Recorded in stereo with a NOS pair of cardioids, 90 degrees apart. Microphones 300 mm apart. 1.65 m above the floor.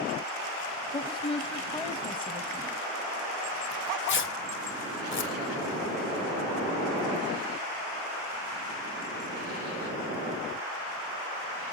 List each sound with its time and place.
0.9 s a woman speaking: 15° left, 1.0 m
3.7 s tearing paper: 40° left, 1.4 m